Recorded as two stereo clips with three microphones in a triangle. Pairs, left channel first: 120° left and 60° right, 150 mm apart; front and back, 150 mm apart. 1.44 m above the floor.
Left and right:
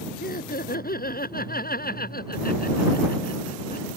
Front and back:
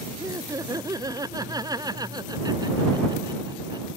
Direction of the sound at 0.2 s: 110° left.